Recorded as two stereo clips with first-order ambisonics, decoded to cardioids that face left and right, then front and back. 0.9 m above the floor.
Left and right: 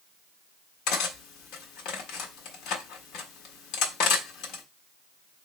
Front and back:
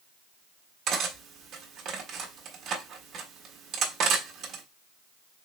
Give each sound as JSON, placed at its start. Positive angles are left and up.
{"t": 0.9, "sound": "cutlery clinking", "azimuth_deg": 125, "distance_m": 0.8}